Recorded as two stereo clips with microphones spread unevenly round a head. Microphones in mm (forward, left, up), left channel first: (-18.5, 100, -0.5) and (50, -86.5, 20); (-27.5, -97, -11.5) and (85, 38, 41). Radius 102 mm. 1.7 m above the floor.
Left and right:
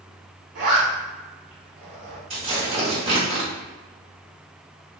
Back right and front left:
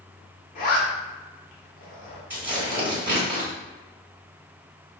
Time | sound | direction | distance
0.6 | a zipper | 80° right | 1.2 m
2.3 | tearing paper | 20° right | 1.8 m